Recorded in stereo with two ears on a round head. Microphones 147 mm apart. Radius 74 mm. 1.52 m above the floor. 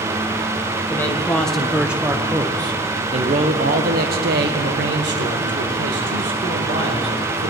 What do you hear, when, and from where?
0.9 s a man speaking: 15° left (ahead or behind), 1.5 m; by 7.5 s 85° right, 3 m